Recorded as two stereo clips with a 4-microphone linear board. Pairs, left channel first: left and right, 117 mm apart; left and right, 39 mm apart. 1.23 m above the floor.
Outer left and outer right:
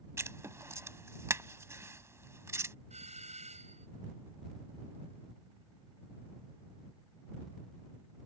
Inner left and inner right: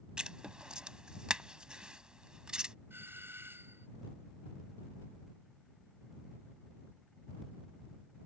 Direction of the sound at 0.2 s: 25° right (ahead or behind).